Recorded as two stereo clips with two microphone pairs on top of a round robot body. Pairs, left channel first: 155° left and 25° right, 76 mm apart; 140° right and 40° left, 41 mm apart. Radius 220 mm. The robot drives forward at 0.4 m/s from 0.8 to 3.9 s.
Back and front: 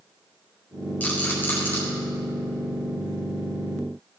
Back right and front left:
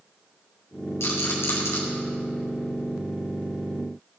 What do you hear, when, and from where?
1.0 s a rattle: 130° right, 4 m; by 1.8 s 135° right, 4 m